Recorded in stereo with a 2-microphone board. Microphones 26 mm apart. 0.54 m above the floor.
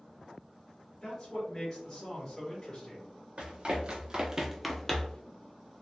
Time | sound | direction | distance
1.0 | a man speaking | 20° left (ahead or behind) | 1.1 m
3.4 | running footsteps | 45° right (ahead or behind) | 1.1 m